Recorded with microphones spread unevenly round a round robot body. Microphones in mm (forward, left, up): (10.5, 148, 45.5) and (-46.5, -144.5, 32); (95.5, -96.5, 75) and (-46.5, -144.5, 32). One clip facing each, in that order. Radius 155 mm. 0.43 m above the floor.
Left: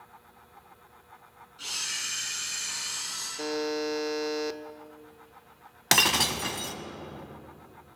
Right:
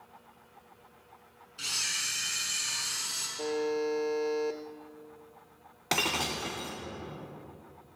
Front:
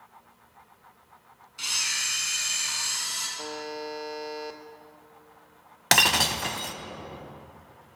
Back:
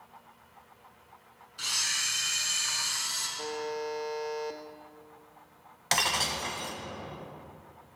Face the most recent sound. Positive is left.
turn(degrees=15)